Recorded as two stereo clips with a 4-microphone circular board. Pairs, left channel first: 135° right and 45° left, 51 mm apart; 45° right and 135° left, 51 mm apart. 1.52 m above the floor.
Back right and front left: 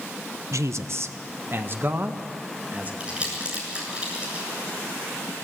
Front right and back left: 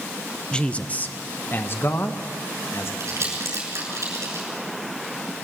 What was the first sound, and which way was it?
A man speaking, 30° left.